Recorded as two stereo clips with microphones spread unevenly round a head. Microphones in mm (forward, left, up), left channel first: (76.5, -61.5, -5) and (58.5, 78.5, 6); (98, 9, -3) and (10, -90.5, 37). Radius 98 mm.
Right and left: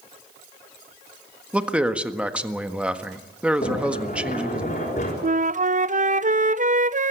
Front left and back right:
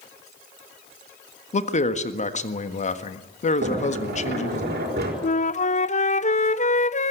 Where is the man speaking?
15° left, 1.6 m.